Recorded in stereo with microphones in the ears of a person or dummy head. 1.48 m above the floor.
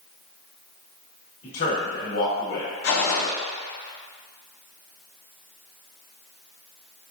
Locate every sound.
1.4 s a man speaking: 75° left (ahead or behind), 1.6 m
2.8 s a gunshot: 55° left (ahead or behind), 0.7 m